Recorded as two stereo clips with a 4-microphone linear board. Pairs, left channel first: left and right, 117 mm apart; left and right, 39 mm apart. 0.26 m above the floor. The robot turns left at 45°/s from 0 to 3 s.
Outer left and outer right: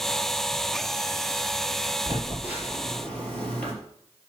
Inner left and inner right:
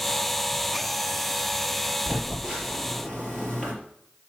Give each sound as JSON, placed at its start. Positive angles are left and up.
{"t": 2.1, "sound": "a phone buzzing", "side_deg": -30, "distance_m": 4.5}